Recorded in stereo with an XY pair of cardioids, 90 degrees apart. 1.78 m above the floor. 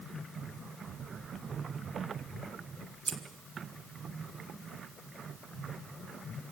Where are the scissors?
35° right, 3 m.